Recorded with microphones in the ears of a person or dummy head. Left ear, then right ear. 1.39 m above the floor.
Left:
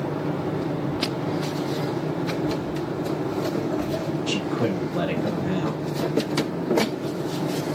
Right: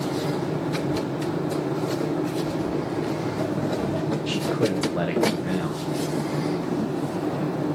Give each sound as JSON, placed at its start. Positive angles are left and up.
{"t": 2.6, "sound": "footsteps", "side_deg": -50, "distance_m": 3.0}
{"t": 4.3, "sound": "a man speaking", "side_deg": -20, "distance_m": 1.2}